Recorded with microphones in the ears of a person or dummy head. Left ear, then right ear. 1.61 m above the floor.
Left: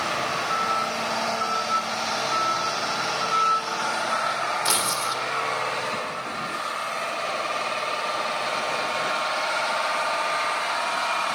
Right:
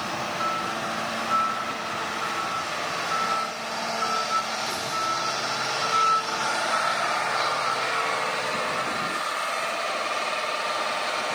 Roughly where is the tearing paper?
Left.